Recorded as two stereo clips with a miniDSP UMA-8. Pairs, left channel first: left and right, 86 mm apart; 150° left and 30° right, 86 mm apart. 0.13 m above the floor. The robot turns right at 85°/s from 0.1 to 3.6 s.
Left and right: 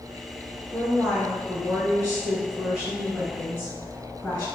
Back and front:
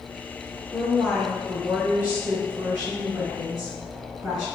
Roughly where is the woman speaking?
Behind.